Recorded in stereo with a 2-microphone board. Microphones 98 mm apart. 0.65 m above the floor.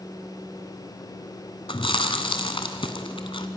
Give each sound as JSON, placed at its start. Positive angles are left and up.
{"t": 1.7, "sound": "chewing", "side_deg": 70, "distance_m": 1.6}